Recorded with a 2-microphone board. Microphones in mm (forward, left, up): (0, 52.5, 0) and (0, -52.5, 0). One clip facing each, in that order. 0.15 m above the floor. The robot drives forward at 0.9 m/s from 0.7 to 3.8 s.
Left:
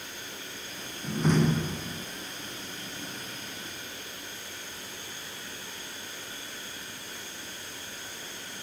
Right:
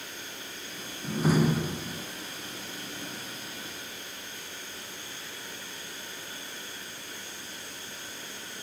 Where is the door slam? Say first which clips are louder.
Even; 5° right (ahead or behind), 0.8 m.